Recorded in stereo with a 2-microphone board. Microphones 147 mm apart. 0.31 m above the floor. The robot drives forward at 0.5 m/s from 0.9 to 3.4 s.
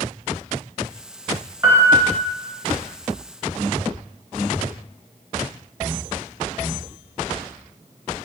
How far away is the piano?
About 0.6 m.